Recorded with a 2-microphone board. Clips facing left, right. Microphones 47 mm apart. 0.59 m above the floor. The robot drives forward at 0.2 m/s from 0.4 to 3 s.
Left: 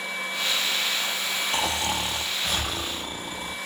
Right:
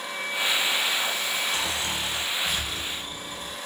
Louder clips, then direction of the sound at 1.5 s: Left 2 dB; 60° left (ahead or behind).